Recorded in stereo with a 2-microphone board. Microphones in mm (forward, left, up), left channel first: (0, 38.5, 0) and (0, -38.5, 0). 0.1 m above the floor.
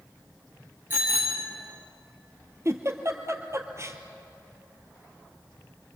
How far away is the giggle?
About 2.0 m.